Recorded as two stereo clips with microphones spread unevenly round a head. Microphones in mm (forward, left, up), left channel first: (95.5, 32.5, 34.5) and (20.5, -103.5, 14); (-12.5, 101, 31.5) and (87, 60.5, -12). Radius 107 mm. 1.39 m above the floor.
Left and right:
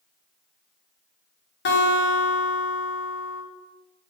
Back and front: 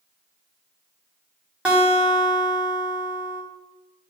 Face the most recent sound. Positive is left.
turn(degrees=55)